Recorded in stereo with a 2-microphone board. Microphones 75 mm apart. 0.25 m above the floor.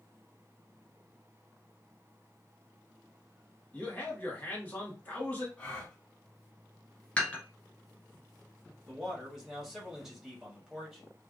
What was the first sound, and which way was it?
A man speaking, 20° left (ahead or behind).